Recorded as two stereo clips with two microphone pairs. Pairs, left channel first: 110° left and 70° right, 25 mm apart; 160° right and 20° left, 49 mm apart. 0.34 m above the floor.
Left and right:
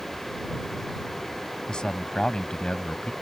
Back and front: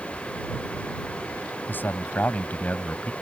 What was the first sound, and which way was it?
A man speaking, 165° left.